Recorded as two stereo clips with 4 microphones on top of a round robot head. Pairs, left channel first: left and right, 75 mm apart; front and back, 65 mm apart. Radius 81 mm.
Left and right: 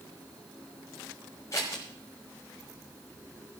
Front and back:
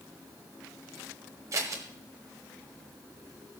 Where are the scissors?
155° left, 1.3 m.